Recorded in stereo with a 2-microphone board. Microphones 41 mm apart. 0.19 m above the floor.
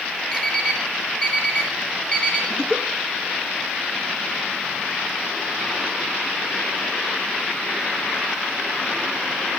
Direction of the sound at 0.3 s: 20° left (ahead or behind).